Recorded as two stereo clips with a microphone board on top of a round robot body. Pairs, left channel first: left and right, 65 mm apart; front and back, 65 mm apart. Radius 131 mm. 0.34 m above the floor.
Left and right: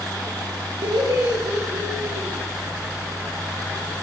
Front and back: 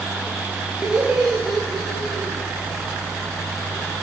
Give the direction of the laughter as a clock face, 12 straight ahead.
3 o'clock.